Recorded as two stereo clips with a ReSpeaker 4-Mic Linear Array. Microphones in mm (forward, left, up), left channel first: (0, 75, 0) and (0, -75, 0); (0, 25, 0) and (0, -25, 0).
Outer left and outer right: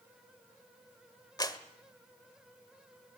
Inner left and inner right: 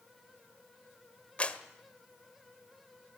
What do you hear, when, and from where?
1.4 s a clap: 25° left (ahead or behind), 1.4 m